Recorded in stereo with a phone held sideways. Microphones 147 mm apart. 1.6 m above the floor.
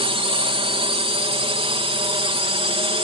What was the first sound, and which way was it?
A drone, 40° right (ahead or behind).